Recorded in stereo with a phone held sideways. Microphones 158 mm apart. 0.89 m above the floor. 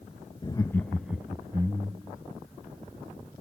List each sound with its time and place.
0.4 s laughter: 30° left (ahead or behind), 0.7 m; by 2.2 s 30° right (ahead or behind), 1.4 m